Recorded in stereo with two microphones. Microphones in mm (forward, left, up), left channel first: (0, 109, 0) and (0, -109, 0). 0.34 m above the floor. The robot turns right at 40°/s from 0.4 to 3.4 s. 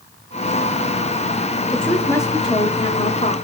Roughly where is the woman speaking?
Ahead.